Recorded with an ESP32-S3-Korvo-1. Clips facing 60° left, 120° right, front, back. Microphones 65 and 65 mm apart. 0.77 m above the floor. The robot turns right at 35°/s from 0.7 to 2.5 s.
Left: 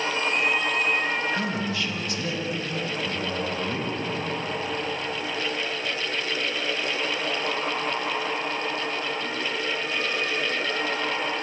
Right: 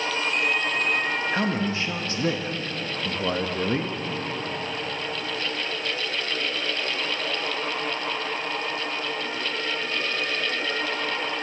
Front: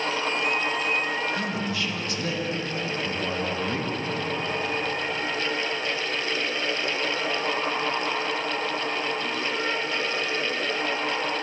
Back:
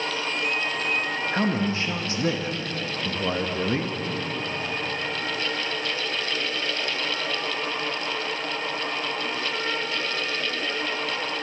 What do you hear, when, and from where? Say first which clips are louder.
1.3 s a man speaking: right 2 dB, back 4 dB; 165° right, 0.6 m; by 4.0 s 125° right, 0.6 m